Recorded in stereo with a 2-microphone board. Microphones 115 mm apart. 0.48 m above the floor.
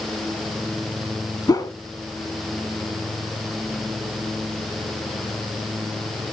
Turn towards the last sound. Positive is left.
turn(degrees=35)  # may be behind; listen again after turning